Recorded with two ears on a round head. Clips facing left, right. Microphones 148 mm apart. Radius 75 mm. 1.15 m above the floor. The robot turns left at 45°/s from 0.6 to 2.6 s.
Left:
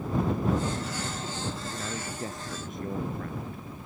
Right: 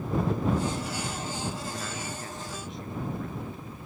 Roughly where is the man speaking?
Behind.